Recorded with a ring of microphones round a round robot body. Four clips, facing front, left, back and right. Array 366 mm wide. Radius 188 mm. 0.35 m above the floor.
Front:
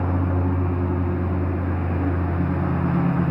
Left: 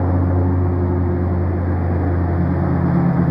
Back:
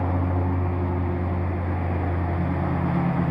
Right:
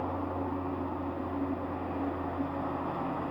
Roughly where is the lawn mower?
Left.